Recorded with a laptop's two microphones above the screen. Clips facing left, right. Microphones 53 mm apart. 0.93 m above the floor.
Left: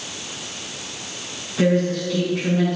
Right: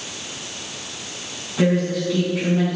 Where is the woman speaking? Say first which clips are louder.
Left 1 dB; 10° right (ahead or behind), 4.5 m.